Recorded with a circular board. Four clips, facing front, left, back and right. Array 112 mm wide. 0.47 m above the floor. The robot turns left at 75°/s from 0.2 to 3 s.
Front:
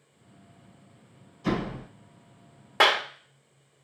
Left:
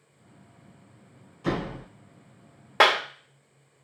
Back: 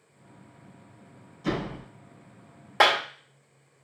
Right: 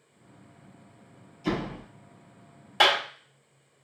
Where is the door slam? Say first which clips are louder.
Left 1 dB, front 1 dB; 90° left, 3 m; by 1.9 s 60° left, 3 m.